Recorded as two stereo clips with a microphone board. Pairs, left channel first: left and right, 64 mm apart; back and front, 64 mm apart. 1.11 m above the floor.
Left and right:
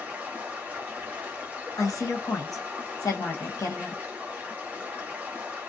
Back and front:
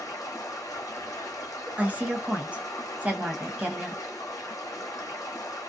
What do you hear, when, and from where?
0.0 s running water: 155° right, 1.1 m
1.8 s a woman speaking: 70° left, 0.9 m